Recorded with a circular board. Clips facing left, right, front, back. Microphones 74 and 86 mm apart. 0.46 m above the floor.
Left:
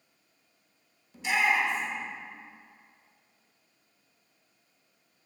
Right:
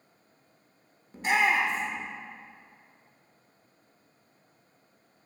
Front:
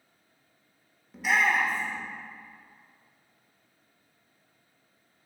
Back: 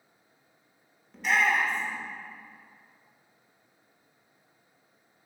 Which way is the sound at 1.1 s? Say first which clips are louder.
Right 2 dB, even; 85° right.